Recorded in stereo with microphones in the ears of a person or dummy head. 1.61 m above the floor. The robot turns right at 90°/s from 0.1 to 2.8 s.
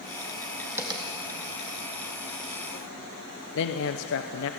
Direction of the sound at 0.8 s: 10° right (ahead or behind).